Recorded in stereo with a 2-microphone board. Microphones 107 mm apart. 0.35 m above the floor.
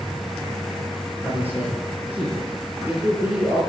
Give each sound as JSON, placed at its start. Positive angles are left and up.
{"t": 1.2, "sound": "a man speaking", "side_deg": -15, "distance_m": 9.5}